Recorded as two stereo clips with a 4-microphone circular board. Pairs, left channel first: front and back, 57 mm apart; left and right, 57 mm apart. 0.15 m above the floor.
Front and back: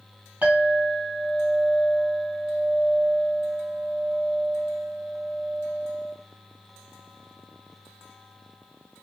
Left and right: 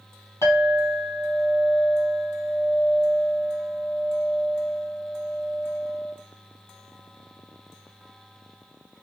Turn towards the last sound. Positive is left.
turn(degrees=110)